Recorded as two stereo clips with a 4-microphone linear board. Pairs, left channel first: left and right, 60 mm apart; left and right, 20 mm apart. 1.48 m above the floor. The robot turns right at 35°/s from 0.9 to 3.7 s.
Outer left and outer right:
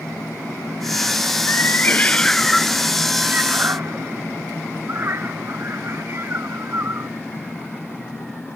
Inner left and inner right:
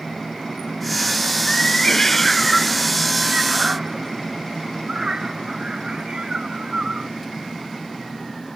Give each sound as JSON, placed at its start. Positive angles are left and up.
{"t": 1.5, "sound": "a cat meowing", "side_deg": 40}